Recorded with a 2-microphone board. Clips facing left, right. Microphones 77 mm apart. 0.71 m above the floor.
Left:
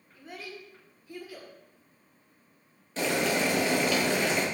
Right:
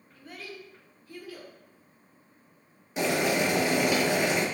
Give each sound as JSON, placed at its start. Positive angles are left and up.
{"t": 0.1, "sound": "a child speaking", "side_deg": 20, "distance_m": 1.3}
{"t": 3.0, "sound": "boiling", "side_deg": -15, "distance_m": 0.8}